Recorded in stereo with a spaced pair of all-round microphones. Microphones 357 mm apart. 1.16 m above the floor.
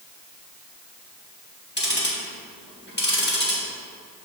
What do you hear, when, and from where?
1.8 s ticking: 30° left (ahead or behind), 1.6 m